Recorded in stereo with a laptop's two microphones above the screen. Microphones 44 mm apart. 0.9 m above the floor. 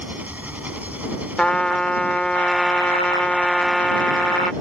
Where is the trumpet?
20° left (ahead or behind).